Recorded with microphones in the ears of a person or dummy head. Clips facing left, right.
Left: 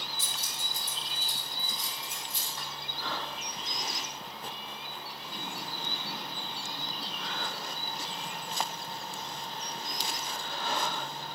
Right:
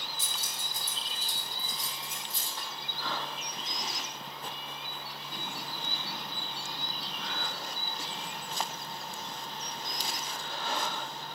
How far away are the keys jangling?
About 3 m.